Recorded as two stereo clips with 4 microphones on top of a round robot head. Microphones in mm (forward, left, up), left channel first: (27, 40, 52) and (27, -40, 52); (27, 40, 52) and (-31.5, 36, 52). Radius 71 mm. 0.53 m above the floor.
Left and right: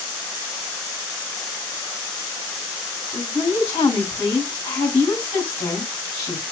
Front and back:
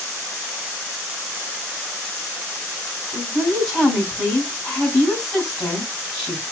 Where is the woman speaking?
85° left, 3.5 m.